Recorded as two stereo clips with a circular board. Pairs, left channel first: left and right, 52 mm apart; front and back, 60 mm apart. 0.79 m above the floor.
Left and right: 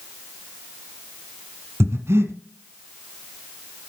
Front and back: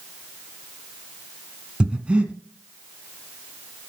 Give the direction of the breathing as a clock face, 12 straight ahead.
4 o'clock.